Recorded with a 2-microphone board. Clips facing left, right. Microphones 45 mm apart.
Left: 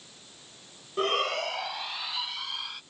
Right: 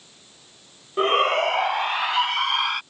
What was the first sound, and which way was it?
A shout, 30° right (ahead or behind).